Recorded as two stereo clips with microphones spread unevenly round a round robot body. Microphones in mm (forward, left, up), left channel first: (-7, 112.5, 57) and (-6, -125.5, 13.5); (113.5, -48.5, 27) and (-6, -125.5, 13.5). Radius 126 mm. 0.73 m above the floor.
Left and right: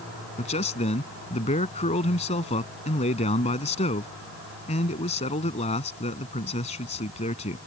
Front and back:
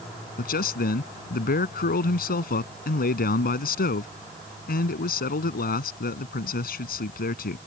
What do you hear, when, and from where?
0.4 s a man speaking: 25° left